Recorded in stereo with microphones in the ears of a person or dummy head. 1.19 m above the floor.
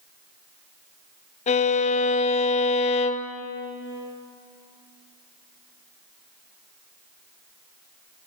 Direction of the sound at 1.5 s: 30° left (ahead or behind).